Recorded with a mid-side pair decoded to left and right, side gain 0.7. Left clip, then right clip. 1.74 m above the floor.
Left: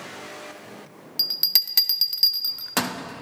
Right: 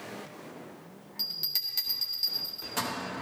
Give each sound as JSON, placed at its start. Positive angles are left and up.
{"t": 1.2, "sound": "a bell", "azimuth_deg": 50, "distance_m": 0.6}